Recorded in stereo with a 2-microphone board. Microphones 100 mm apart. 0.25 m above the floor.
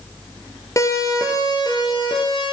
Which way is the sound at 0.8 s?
35° left (ahead or behind).